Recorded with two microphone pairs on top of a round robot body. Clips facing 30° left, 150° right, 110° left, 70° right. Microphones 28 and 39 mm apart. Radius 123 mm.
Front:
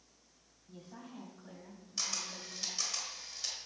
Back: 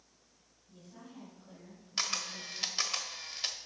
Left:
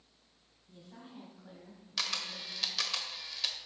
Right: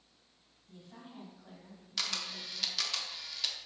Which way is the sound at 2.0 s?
165° right.